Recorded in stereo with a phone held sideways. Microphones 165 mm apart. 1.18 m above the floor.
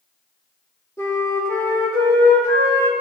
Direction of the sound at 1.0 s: 20° left (ahead or behind).